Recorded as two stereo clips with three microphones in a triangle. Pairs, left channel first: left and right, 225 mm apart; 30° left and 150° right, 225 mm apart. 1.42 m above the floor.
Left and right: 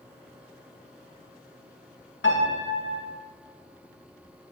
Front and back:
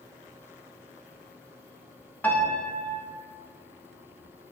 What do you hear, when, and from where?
2.2 s a piano: 110° left, 2.5 m